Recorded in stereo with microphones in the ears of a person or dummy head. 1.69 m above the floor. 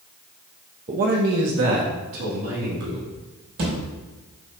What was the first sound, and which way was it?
A man speaking, 20° right (ahead or behind).